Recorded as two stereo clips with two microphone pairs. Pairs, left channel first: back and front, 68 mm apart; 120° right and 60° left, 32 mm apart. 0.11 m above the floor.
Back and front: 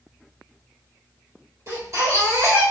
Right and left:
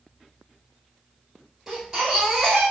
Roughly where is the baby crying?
Ahead.